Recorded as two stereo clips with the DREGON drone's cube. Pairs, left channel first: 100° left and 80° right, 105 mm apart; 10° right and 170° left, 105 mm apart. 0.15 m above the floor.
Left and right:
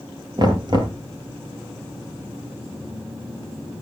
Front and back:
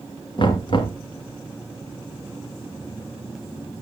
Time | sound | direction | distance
0.4 | knocking | 40° right | 2 m